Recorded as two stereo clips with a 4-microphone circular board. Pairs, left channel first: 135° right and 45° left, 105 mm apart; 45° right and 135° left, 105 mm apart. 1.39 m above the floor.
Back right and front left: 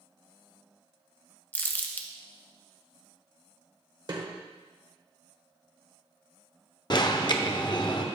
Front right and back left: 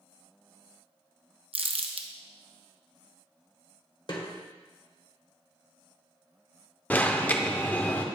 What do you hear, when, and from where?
1.5 s crumpling: 155° left, 0.7 m
4.1 s a snare drum: straight ahead, 1.4 m
6.9 s an alarm: 115° right, 0.6 m